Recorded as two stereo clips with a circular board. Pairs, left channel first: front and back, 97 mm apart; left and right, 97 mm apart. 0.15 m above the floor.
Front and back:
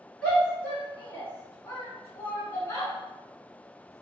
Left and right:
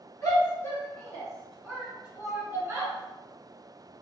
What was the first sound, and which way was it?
A shout, 65° left.